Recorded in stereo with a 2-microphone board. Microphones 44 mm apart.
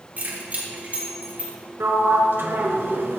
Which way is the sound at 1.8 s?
70° right (ahead or behind).